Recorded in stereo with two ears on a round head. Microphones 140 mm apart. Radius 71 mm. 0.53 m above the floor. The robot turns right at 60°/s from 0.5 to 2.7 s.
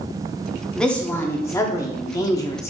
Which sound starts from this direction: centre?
A woman speaking, at 0.8 s.